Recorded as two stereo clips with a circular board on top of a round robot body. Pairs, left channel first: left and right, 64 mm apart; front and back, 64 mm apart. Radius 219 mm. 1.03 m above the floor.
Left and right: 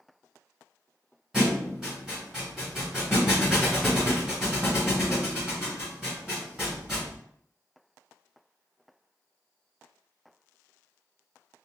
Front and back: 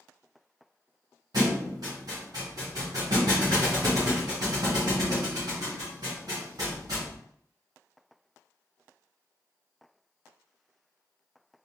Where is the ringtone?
I don't hear a ringtone.